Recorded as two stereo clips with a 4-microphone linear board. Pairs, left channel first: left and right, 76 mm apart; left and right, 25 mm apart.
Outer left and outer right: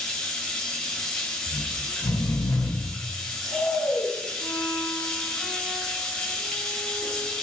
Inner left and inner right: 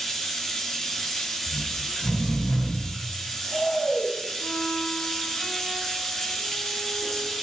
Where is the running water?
10° left (ahead or behind), 3 m.